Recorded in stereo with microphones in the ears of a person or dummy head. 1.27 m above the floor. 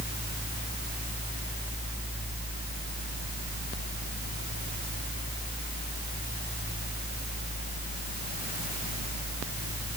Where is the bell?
No bell in this recording.